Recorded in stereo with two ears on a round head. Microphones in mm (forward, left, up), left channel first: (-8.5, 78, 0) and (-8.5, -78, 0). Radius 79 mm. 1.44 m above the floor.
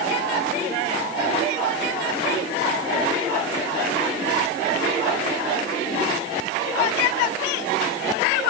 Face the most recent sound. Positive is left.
No sound to turn to.